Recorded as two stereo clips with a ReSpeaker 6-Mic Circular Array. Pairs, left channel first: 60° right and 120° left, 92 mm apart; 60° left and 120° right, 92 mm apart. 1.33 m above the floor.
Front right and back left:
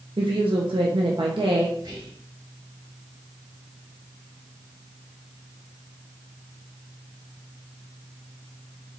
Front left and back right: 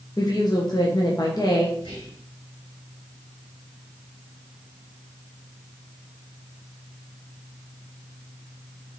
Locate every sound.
0.2 s a woman speaking: 105° left, 1.0 m
1.8 s whispering: 80° left, 3 m